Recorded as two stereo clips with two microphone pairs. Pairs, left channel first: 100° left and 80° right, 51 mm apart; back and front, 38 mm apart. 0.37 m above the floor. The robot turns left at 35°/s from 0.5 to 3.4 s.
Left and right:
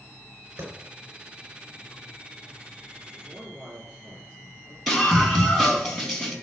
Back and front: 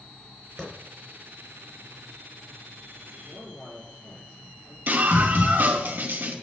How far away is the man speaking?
About 5 m.